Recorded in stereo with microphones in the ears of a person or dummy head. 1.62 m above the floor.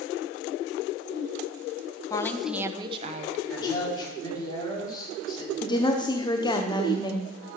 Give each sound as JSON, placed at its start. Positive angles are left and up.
{"t": 2.1, "sound": "a woman speaking", "side_deg": 20, "distance_m": 1.0}
{"t": 3.5, "sound": "a man speaking", "side_deg": 20, "distance_m": 5.0}
{"t": 5.6, "sound": "a woman speaking", "side_deg": 25, "distance_m": 1.1}